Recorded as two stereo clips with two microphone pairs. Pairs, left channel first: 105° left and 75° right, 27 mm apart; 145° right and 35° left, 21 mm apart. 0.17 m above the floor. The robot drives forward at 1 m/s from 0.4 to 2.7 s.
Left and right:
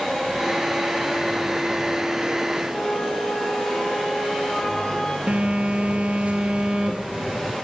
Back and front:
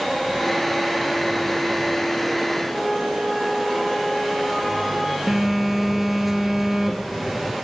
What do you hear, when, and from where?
2.7 s a flute: 125° left, 6.5 m
5.3 s a phone buzzing: 55° right, 2 m